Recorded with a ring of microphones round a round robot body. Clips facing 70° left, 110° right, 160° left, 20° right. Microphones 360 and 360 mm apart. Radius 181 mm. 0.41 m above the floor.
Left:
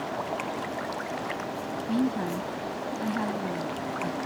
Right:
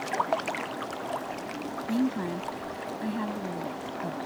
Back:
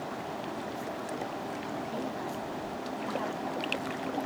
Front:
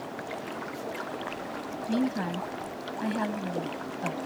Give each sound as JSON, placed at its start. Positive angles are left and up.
{"t": 1.9, "sound": "a woman speaking", "azimuth_deg": -15}